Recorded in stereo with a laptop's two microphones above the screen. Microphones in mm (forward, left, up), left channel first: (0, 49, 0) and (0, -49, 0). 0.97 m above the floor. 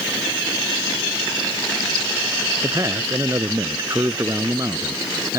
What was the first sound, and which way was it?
A man speaking, 35° right (ahead or behind).